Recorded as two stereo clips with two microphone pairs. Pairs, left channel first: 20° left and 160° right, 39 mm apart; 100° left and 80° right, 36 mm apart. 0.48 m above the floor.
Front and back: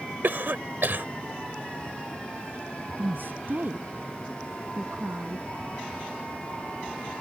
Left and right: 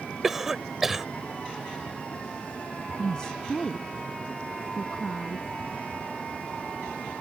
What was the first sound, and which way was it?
A cough, 160° right.